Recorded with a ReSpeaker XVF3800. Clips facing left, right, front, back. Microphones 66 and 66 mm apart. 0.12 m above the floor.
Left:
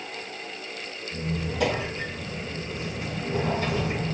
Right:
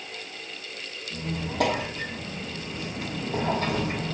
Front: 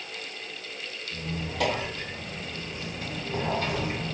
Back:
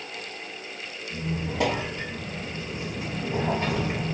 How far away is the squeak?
About 2.5 m.